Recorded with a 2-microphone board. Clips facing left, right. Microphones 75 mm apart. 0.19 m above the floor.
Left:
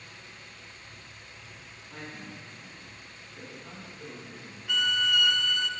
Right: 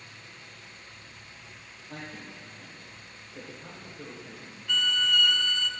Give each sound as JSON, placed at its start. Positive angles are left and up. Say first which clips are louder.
{"t": 1.9, "sound": "a man speaking", "louder": "right 1 dB", "side_deg": -75, "distance_m": 6.5}
{"t": 4.7, "sound": "a violin", "louder": "left 1 dB", "side_deg": 5, "distance_m": 0.6}